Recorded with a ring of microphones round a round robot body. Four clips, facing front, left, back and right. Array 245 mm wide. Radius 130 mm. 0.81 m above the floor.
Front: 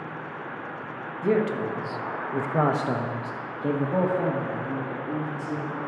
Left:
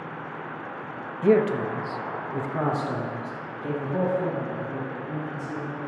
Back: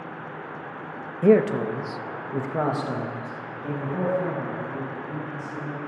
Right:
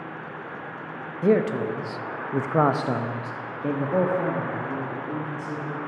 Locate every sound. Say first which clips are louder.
1.2 s a man speaking: left 1 dB, back 6 dB; 160° right, 1.0 m; by 5.8 s 35° right, 2.5 m